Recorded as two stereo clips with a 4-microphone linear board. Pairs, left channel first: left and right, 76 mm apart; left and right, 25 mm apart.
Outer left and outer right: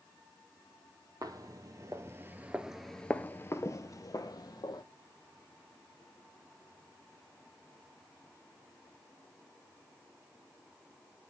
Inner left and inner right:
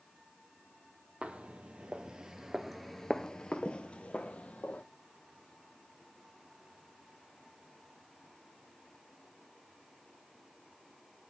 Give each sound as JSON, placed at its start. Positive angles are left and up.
{"t": 1.2, "sound": "footsteps", "side_deg": -55, "distance_m": 1.0}